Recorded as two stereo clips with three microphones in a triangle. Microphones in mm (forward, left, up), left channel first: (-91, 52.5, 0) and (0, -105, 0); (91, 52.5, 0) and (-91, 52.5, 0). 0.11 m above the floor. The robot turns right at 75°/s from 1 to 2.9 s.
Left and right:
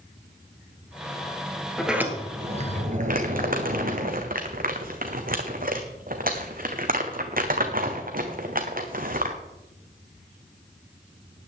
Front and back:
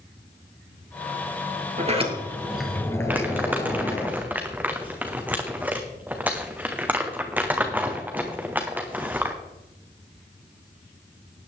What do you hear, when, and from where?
1.8 s a sliding door: 155° right, 2 m; by 4.1 s 70° right, 2 m
3.1 s crumpling: 100° right, 1.8 m